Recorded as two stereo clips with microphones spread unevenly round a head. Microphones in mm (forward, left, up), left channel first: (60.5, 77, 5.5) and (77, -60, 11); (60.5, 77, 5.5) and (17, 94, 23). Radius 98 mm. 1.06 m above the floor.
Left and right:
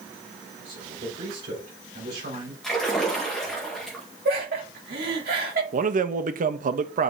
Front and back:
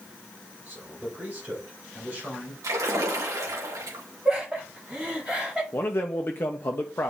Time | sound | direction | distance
0.7 | a man speaking | 120° right | 5 m
2.6 | a splash | straight behind | 1.6 m
4.2 | laughter | 115° right | 3 m
5.7 | a man speaking | 65° right | 1.0 m